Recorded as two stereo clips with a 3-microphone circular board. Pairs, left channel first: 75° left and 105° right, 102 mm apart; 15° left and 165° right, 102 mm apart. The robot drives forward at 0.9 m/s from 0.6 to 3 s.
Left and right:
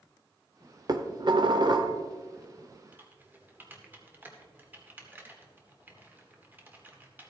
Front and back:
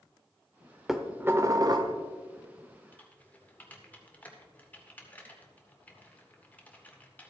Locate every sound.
0.9 s dishes clattering: 75° right, 0.9 m; by 1.9 s 140° right, 1.2 m
2.9 s typing on a keyboard: 45° right, 1.7 m